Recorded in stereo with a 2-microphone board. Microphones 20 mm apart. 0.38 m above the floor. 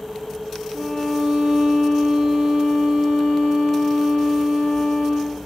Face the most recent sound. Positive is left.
turn(degrees=-80)